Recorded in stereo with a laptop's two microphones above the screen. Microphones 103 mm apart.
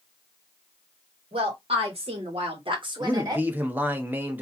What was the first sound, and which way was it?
A woman speaking, 65° right (ahead or behind).